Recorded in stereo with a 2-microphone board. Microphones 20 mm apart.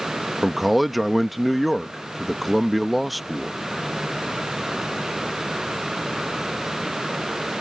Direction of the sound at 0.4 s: Centre (ahead or behind).